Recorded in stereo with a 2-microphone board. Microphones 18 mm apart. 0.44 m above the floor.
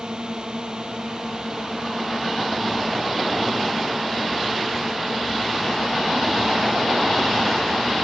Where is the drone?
45° right (ahead or behind); by 8.1 s 40° right (ahead or behind).